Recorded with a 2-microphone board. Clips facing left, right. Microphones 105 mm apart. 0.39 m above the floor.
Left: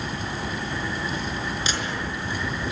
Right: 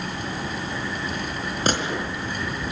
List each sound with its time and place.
1.7 s a gunshot: 50° right (ahead or behind), 4.5 m